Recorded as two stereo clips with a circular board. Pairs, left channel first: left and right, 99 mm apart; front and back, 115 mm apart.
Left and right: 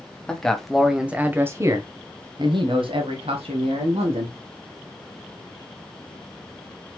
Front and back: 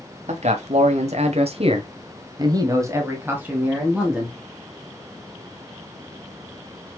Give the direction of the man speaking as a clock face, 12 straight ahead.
6 o'clock.